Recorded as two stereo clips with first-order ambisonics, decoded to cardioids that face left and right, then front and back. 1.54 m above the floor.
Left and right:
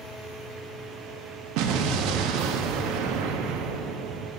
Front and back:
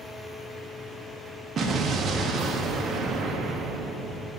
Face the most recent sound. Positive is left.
turn(degrees=-115)